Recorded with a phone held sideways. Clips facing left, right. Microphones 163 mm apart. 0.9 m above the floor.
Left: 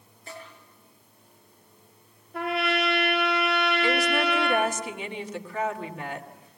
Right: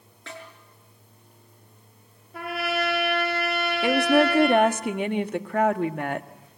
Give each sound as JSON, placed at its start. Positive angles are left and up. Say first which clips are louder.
{"t": 0.3, "sound": "a snare drum", "louder": "right 1 dB", "side_deg": -75, "distance_m": 6.5}
{"t": 2.3, "sound": "a trumpet", "louder": "left 1 dB", "side_deg": 0, "distance_m": 5.0}
{"t": 3.8, "sound": "a woman speaking", "louder": "right 10 dB", "side_deg": -50, "distance_m": 1.2}